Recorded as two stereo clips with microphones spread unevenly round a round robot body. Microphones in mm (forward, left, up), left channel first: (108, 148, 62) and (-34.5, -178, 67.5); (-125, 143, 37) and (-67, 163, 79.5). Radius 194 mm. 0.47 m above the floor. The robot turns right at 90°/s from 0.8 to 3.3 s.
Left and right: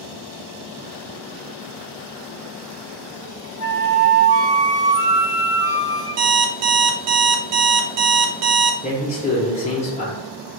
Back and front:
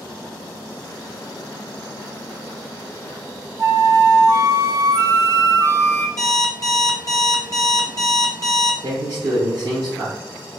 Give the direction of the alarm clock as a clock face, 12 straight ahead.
4 o'clock.